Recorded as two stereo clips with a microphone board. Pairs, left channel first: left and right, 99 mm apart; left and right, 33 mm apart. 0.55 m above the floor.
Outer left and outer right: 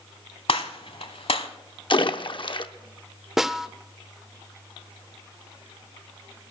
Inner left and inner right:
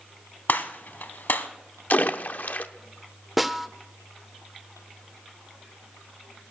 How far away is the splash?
About 0.7 m.